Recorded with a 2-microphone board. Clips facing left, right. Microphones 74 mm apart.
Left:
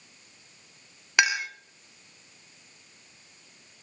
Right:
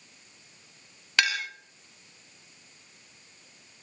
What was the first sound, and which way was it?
A clink, 15° left (ahead or behind).